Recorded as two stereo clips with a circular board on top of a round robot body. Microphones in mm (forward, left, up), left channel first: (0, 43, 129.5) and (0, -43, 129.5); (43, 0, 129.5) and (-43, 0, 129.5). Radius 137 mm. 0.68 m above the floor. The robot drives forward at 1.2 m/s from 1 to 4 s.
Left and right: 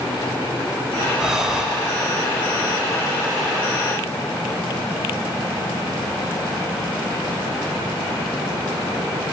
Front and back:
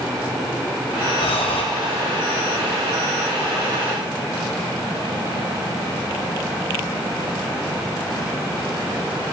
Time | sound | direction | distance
1.2 | breathing | 5° right | 2 m